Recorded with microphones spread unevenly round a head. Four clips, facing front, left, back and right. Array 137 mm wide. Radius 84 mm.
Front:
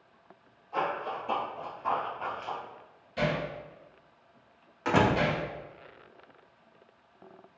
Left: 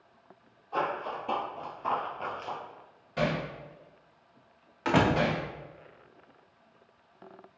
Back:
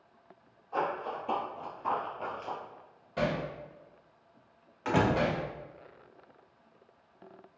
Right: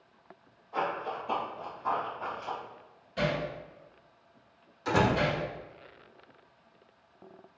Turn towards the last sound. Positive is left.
turn(degrees=50)